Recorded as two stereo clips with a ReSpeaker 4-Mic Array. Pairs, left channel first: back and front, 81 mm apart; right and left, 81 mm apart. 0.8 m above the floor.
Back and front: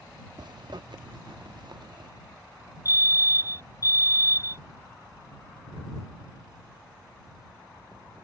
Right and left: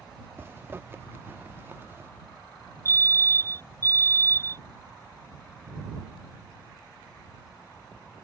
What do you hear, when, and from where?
0.4 s a zipper: 25° left
2.9 s a fire alarm: 140° right